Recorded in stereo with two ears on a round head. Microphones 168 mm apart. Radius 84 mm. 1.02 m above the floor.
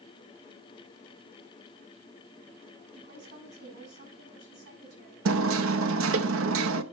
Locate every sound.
2.9 s a woman speaking: 60° right (ahead or behind), 6.5 m
5.2 s hammering: 80° right, 0.8 m